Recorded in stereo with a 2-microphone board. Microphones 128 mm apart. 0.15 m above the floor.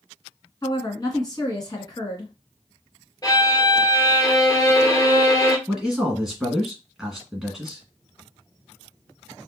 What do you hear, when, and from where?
0.6 s a woman speaking: 35° left (ahead or behind), 1.5 m
3.2 s a violin: 30° left (ahead or behind), 0.8 m
5.7 s a man speaking: 5° right (ahead or behind), 1.7 m